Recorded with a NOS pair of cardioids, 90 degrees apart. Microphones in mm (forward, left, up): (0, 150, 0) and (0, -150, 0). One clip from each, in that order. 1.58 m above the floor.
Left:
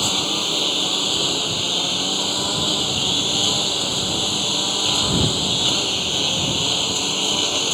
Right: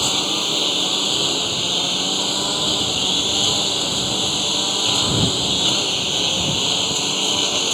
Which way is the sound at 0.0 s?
5° right.